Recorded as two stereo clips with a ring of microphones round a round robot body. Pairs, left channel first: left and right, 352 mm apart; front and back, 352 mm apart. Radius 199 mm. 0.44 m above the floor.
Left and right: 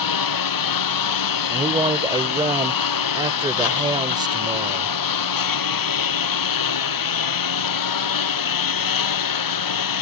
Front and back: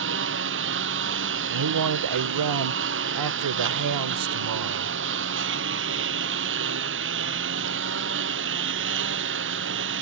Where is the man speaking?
165° right.